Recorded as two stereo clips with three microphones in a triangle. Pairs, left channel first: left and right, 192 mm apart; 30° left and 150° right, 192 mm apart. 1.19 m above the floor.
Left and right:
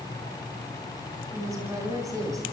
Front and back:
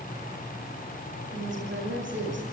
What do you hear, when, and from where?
1.3 s a woman speaking: 165° right, 9.5 m